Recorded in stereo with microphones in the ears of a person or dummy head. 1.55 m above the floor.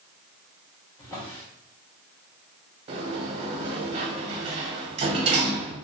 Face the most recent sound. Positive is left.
turn(degrees=-35)  # may be behind; listen again after turning